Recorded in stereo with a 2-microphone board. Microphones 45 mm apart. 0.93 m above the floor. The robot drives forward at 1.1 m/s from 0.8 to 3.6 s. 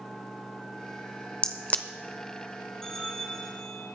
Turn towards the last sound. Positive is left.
turn(degrees=5)  # may be behind; listen again after turning